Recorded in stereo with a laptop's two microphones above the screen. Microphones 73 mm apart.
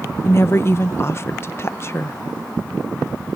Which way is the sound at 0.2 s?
40° left (ahead or behind).